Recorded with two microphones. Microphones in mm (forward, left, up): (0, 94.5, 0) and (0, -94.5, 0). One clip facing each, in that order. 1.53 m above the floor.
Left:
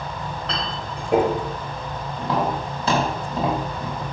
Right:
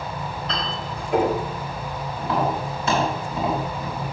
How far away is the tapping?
About 5 m.